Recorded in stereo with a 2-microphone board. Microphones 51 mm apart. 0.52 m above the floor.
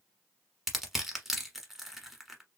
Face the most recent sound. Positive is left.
turn(degrees=-5)  # may be behind; listen again after turning